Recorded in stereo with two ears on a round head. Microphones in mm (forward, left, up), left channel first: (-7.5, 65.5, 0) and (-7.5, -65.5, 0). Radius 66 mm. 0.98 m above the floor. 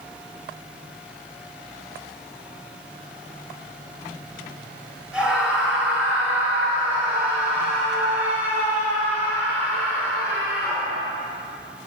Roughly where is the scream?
Centre.